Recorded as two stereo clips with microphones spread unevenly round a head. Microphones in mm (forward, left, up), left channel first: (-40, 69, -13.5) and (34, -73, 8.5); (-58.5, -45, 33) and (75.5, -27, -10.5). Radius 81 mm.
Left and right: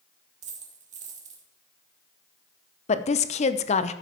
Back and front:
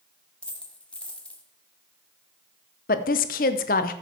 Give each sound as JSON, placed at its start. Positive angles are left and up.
{"t": 0.4, "sound": "a dropped coin", "azimuth_deg": -100, "distance_m": 2.0}
{"t": 2.9, "sound": "a woman speaking", "azimuth_deg": 170, "distance_m": 0.8}